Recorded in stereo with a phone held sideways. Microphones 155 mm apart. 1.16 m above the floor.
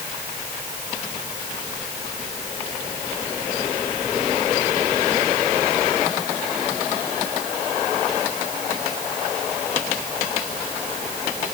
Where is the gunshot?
I don't hear a gunshot.